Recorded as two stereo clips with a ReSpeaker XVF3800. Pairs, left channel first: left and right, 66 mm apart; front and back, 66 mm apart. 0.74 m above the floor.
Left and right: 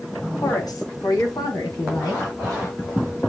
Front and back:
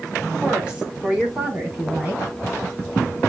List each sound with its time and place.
0.4 s a woman speaking: 105° left, 4.5 m; by 2.3 s 115° left, 5.5 m